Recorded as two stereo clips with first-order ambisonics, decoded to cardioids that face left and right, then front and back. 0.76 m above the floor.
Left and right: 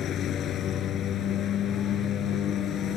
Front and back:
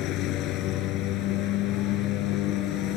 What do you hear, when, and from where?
0.0 s a lawn mower: 40° left